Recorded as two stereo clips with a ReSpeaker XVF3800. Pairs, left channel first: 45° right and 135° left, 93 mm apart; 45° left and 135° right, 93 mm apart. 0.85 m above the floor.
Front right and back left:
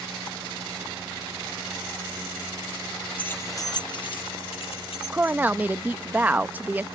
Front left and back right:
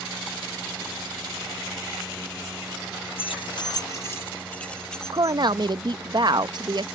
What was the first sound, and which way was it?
Keys jangling, 30° left.